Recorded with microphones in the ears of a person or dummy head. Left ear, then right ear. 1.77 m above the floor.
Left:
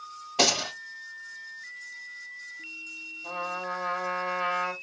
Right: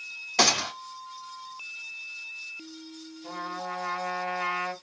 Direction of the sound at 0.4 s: 65° right (ahead or behind).